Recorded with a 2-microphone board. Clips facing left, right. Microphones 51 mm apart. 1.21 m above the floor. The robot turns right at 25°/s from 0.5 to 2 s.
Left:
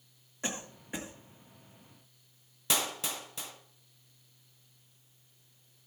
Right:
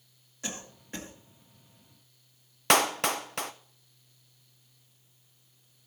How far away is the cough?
About 2 m.